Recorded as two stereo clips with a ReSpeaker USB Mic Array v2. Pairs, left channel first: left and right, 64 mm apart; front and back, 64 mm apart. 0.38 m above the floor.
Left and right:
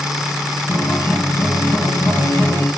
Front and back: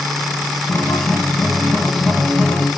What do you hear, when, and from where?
0.7 s a guitar: 90° left, 4 m